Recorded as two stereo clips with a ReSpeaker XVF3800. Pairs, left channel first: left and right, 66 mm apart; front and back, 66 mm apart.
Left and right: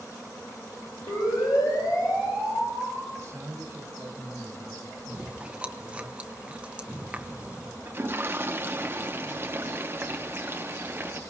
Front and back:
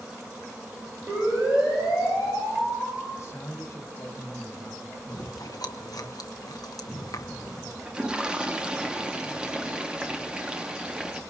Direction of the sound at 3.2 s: 45° right.